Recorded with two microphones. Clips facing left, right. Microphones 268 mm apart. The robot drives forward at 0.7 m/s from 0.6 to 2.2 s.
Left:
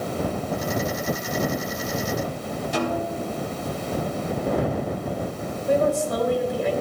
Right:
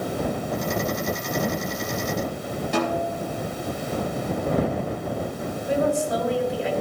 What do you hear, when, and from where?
2.7 s a snare drum: 70° right (ahead or behind), 4.5 m
5.7 s a woman speaking: 50° left (ahead or behind), 4.5 m